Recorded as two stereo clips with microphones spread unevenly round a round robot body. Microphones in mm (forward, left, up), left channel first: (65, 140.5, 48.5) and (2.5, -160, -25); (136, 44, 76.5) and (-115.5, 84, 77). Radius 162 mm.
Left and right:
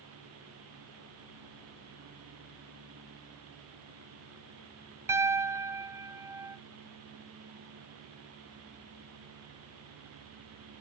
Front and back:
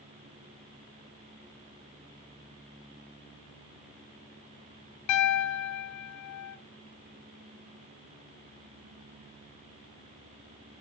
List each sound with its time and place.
5.1 s a piano: 25° right, 0.6 m